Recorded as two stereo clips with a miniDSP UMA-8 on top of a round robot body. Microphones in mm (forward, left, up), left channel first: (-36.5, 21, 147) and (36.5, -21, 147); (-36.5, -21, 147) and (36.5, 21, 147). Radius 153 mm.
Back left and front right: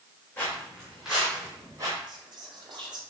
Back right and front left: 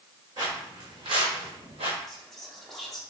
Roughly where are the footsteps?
Left.